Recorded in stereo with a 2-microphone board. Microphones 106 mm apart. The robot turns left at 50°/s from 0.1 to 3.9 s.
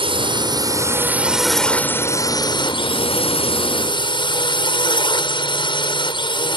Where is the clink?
I don't hear a clink.